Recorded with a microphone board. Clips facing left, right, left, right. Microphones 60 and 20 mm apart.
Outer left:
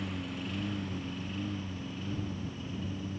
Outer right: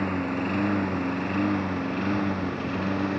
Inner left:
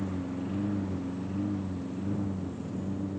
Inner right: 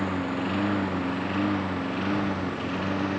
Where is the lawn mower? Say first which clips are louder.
Outer right 11 dB, inner right 7 dB; 50° right (ahead or behind); by 3.2 s 70° right (ahead or behind).